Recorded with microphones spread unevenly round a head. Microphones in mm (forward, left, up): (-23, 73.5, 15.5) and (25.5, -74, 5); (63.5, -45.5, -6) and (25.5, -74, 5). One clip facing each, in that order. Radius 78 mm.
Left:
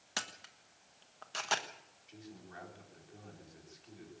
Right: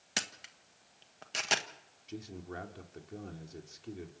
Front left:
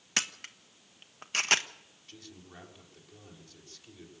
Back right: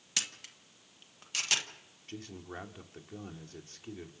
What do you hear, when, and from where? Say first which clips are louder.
0.2 s a camera shutter: right 3 dB, front left 5 dB; 5° right, 1.5 m
2.1 s a man speaking: right 9 dB, back right 7 dB; 100° right, 3.5 m